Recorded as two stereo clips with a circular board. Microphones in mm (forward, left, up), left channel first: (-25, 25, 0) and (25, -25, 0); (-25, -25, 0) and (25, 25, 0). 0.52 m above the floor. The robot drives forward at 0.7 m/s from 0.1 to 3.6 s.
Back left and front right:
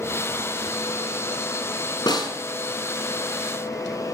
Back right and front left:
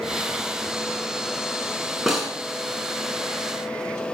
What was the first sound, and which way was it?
A snare drum, 130° left.